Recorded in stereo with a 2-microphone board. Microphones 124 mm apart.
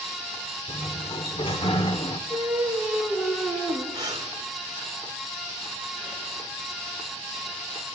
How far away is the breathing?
About 3.5 m.